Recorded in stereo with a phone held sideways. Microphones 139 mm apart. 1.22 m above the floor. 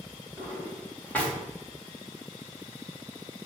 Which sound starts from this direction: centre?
A drawer, at 0.4 s.